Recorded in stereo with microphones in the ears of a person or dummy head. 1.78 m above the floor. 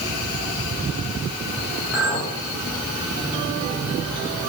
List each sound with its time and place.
1.9 s a clink: 10° right (ahead or behind), 4 m